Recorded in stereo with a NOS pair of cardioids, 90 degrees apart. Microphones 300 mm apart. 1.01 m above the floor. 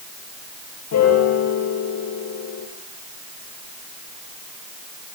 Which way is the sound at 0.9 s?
55° left.